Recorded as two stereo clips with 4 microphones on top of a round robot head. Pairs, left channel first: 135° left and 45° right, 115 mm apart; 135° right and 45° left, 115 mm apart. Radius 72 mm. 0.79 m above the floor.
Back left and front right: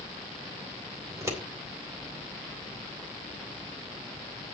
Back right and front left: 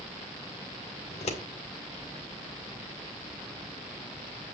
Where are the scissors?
110° right, 3.5 m.